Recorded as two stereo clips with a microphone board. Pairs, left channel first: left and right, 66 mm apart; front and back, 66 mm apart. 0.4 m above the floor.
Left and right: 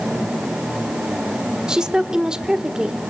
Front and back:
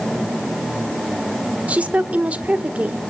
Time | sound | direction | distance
1.7 | a woman speaking | 150° right | 1.5 m